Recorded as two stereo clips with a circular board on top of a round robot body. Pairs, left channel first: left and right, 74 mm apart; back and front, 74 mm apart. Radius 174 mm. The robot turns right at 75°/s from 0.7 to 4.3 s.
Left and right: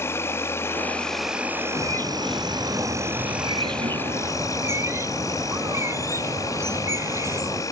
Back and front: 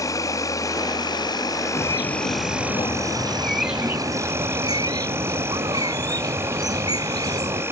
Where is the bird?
135° left; by 7.6 s 35° right.